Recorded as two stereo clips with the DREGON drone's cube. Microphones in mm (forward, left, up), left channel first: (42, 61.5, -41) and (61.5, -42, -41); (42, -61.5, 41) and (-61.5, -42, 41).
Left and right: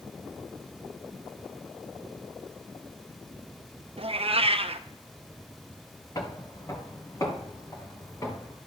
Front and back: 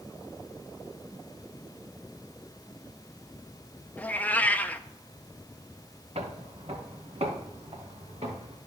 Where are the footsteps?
155° left, 1.6 m; by 8.6 s 160° left, 3 m.